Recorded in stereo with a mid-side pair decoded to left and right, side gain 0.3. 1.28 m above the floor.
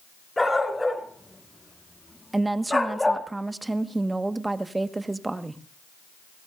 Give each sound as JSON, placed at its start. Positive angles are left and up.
{"t": 0.4, "sound": "a dog barking", "azimuth_deg": 20, "distance_m": 5.5}
{"t": 2.3, "sound": "a woman speaking", "azimuth_deg": -30, "distance_m": 1.6}